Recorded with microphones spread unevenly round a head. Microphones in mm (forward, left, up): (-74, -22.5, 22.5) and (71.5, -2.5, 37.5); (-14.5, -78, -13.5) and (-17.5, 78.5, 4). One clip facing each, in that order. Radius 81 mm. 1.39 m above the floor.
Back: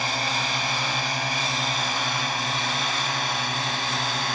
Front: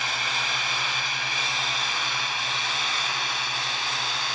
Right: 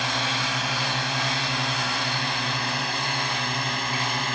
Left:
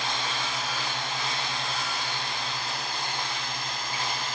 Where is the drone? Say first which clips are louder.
Back 4 dB, right 3 dB; 115° right; by 4.3 s 125° right.